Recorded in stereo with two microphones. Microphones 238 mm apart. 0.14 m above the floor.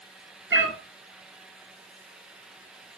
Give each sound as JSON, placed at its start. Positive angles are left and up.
{"t": 0.5, "sound": "a cat meowing", "side_deg": -55, "distance_m": 1.0}